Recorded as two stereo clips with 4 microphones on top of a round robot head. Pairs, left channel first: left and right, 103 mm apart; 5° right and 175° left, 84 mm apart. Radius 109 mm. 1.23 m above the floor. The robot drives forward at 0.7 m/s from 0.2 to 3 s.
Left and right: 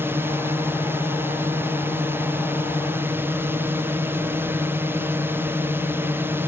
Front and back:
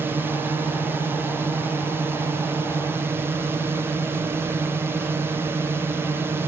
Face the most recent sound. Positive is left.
turn(degrees=-145)